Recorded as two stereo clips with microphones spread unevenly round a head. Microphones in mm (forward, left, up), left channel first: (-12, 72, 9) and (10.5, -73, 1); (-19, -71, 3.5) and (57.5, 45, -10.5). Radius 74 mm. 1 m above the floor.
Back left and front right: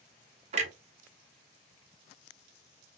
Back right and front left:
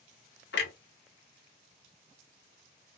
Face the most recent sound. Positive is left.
turn(degrees=-125)